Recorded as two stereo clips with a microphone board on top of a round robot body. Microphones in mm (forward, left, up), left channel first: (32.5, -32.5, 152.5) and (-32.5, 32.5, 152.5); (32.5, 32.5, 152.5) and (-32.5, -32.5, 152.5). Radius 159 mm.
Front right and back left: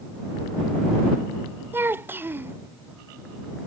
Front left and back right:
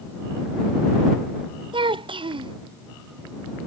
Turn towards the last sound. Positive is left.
turn(degrees=-160)